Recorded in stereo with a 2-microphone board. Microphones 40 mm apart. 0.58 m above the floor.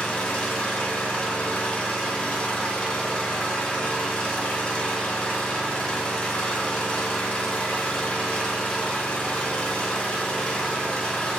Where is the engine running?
25° left (ahead or behind), 0.8 m.